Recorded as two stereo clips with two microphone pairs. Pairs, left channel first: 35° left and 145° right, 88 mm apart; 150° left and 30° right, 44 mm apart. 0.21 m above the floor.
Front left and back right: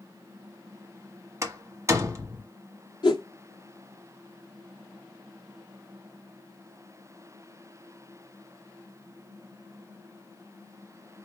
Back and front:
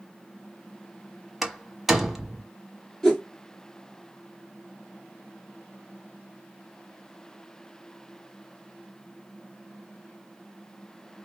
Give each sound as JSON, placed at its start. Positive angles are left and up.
{"t": 1.4, "sound": "a door slam", "azimuth_deg": -115, "distance_m": 1.3}
{"t": 3.0, "sound": "a whoosh", "azimuth_deg": 70, "distance_m": 1.7}